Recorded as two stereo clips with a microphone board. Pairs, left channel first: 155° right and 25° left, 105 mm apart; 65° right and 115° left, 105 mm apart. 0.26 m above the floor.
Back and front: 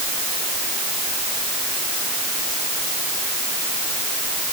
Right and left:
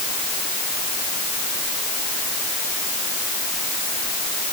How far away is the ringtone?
No ringtone in this recording.